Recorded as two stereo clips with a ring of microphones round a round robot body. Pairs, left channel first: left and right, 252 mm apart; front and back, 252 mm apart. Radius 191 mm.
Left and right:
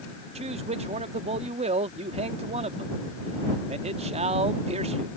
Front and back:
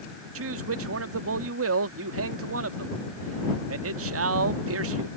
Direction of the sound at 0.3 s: 155° right.